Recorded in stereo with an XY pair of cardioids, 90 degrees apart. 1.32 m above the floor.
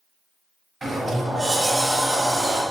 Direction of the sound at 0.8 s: 25° right.